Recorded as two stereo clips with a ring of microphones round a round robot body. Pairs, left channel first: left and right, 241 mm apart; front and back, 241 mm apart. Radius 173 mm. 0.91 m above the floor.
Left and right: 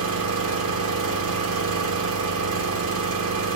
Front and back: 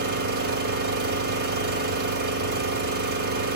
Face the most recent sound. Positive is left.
turn(degrees=-120)